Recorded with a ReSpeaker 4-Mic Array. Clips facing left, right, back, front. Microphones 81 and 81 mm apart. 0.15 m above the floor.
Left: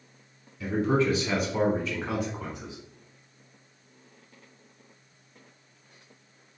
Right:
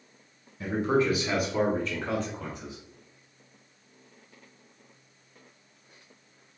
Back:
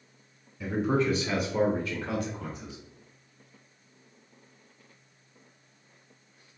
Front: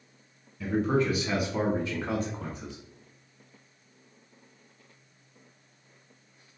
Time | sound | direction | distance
0.6 | a man speaking | 100° right | 1.1 m